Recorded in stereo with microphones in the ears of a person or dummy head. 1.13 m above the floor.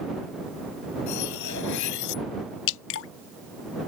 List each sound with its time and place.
1.1 s cutlery clinking: 65° left (ahead or behind)
2.7 s dripping: 75° left (ahead or behind)